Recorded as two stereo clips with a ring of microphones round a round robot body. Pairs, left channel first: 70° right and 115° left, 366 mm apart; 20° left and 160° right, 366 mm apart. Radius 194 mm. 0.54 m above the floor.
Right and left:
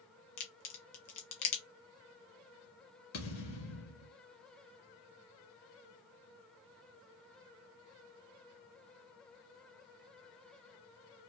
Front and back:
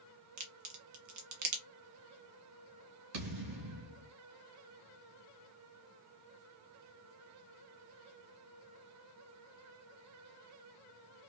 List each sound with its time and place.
0.4 s a crack: 110° right, 1.2 m
3.1 s a thud: 130° right, 2 m